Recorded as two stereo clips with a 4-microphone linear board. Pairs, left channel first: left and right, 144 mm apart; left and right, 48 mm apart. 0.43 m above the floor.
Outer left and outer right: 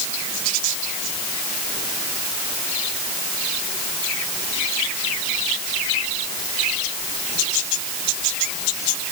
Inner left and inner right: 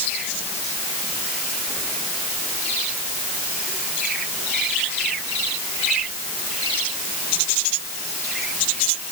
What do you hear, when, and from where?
Only background noise.